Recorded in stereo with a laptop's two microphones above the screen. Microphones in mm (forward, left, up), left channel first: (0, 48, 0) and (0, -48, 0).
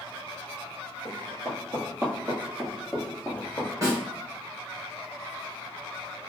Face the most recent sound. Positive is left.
turn(degrees=-35)  # may be behind; listen again after turning